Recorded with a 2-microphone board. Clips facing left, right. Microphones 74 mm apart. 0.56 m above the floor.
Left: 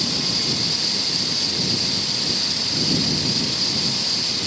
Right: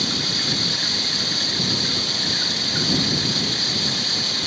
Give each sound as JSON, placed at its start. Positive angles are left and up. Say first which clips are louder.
{"t": 0.0, "sound": "running water", "louder": "even", "side_deg": -55}